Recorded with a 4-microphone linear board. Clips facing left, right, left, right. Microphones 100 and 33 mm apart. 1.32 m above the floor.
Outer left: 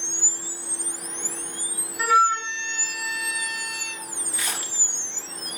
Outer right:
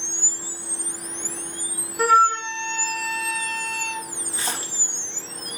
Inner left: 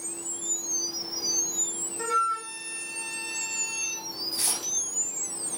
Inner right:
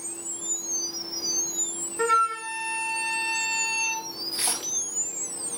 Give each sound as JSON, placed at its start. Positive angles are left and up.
{"t": 2.0, "sound": "a flute", "side_deg": -50, "distance_m": 2.0}
{"t": 4.3, "sound": "a splash", "side_deg": -30, "distance_m": 2.5}